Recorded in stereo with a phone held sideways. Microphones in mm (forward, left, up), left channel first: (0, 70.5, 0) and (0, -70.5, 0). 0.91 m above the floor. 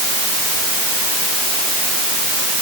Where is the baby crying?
I don't hear a baby crying.